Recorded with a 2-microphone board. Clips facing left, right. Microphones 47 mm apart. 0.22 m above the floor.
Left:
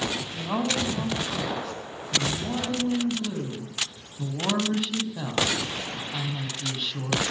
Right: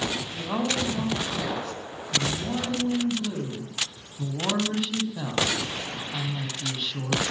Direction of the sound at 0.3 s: 5° left (ahead or behind).